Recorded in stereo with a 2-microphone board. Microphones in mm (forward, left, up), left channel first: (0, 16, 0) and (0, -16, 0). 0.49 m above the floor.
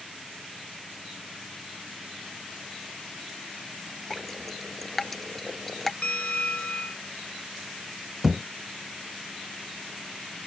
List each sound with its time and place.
4.1 s dripping: 10° left (ahead or behind)
6.0 s a bell: 55° left (ahead or behind)
8.2 s a thud: 5° right (ahead or behind)